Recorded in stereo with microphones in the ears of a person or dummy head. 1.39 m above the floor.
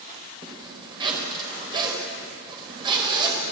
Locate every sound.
0.4 s a zipper: 30° right (ahead or behind), 4.5 m